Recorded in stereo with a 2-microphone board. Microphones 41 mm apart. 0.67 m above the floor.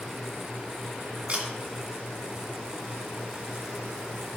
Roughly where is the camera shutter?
Right.